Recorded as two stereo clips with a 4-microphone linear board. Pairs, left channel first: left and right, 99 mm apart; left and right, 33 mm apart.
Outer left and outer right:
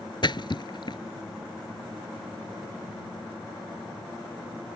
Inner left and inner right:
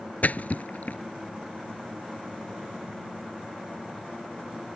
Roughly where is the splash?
Left.